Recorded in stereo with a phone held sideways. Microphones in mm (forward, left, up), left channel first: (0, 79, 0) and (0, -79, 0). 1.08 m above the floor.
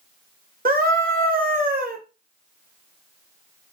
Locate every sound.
0.7 s a scream: 65° right (ahead or behind), 0.9 m